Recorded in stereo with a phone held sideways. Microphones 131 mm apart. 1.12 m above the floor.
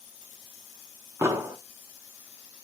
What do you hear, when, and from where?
1.2 s an explosion: 20° right (ahead or behind), 0.6 m